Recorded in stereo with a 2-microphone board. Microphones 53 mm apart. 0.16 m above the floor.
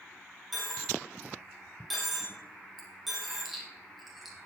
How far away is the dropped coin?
About 3.5 m.